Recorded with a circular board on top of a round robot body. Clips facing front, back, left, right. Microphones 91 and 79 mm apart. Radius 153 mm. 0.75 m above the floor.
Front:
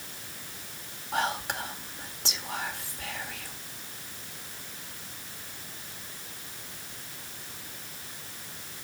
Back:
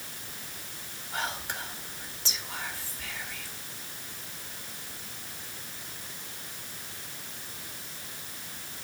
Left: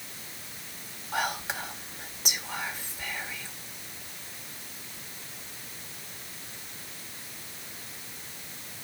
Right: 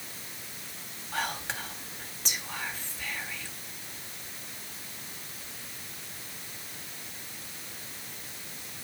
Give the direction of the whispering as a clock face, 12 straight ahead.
12 o'clock.